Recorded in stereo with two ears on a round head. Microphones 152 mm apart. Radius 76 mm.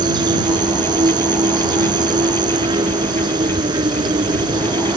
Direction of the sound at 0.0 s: 25° right (ahead or behind).